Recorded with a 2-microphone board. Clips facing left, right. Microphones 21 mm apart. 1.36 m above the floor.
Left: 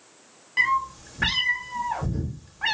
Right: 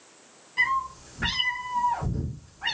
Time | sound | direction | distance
0.6 | a cat meowing | 35° left (ahead or behind) | 0.8 m